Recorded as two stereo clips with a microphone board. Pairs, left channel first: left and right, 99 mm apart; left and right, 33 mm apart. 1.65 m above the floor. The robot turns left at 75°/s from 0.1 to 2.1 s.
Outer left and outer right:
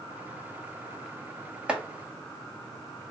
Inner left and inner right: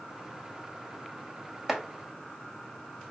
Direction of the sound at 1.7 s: 10° right (ahead or behind).